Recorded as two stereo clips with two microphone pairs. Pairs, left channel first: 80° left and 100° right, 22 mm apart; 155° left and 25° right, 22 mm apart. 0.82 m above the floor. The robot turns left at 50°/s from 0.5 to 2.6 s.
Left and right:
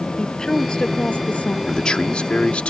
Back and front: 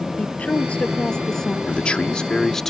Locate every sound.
0.2 s a woman speaking: 140° left; by 1.6 s 85° left
1.7 s a man speaking: 135° left; by 2.7 s 85° left